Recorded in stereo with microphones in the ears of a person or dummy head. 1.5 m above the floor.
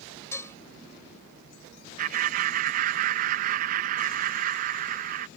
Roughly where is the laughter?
Right.